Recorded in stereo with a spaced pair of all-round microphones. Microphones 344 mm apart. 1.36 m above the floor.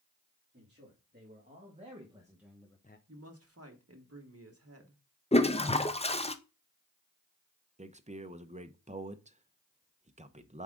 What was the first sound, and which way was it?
A man speaking, 30° right (ahead or behind).